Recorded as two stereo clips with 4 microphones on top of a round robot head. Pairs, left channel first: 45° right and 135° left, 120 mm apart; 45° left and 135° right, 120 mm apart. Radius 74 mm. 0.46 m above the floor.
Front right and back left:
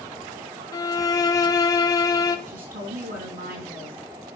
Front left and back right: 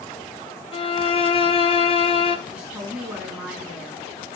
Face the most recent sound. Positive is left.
turn(degrees=145)